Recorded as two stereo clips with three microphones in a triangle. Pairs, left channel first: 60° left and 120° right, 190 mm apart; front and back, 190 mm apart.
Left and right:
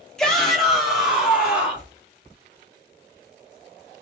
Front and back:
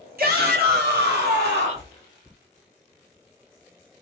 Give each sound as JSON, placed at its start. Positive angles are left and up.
{"t": 0.2, "sound": "a shout", "azimuth_deg": 145, "distance_m": 1.6}